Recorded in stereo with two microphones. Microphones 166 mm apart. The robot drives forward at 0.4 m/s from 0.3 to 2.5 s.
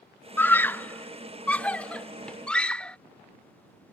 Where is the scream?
10° left (ahead or behind); by 3.0 s 5° left (ahead or behind).